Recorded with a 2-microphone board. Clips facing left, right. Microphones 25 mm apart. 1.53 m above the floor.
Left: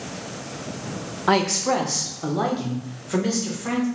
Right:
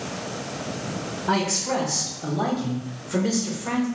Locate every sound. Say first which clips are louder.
1.3 s a man speaking: left 4 dB; 70° left (ahead or behind), 0.7 m; by 3.9 s 85° left, 2.0 m